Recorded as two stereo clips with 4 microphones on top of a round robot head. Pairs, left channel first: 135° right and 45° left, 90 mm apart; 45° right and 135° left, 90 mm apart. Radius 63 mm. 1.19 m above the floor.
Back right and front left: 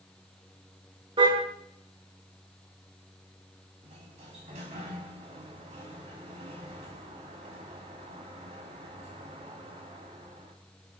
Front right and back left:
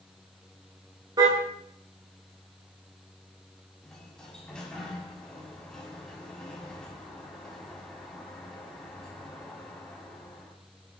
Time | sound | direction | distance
1.2 | a car horn | 85° left | 6.5 m
3.8 | a sliding door | 40° left | 6 m